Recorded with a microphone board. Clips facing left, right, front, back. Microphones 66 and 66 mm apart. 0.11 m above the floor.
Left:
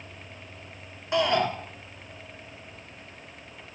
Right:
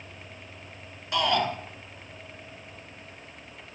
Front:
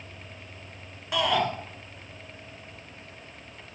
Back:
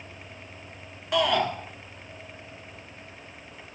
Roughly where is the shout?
Left.